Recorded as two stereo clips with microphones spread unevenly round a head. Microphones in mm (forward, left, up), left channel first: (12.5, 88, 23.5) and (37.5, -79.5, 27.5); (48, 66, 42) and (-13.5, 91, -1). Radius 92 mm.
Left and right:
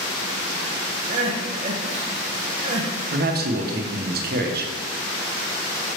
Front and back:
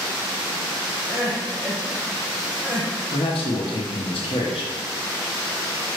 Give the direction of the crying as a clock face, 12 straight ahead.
4 o'clock.